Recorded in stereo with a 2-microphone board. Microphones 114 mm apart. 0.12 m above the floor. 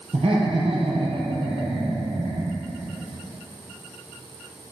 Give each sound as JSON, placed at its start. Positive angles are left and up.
{"t": 0.1, "sound": "laughter", "side_deg": -60, "distance_m": 3.0}